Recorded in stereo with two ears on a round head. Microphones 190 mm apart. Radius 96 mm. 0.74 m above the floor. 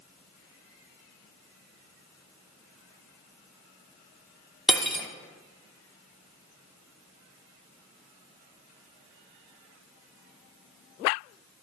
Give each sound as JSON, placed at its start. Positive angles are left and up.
{"t": 4.7, "sound": "cutlery clinking", "side_deg": 0, "distance_m": 0.6}